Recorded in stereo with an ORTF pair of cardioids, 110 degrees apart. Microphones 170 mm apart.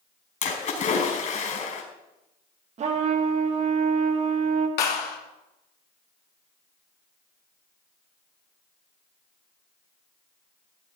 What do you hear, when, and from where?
0.4 s a splash: 50° left, 4.5 m
2.8 s a trumpet: 45° right, 1.7 m
4.8 s a clap: 70° left, 3 m